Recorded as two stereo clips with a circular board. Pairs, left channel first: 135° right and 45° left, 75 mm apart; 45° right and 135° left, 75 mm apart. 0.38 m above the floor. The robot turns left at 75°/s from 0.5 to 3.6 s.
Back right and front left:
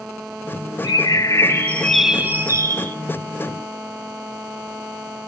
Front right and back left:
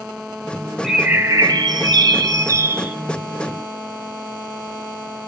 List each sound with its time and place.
0.8 s a bird: 140° right, 1.0 m; by 3.0 s 60° left, 1.0 m